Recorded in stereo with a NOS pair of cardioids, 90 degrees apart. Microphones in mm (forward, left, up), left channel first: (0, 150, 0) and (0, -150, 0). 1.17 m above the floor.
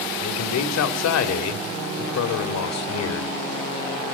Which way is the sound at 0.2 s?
60° left.